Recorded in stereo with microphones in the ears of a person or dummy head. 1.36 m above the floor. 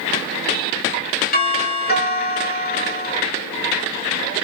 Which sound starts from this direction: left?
A doorbell, at 1.3 s.